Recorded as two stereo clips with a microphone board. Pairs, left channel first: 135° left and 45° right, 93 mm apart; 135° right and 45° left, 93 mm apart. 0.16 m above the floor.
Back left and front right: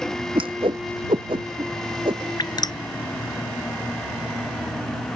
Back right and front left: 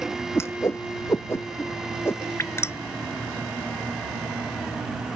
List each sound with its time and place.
0.3 s a whoosh: 75° right
2.4 s dripping: 165° left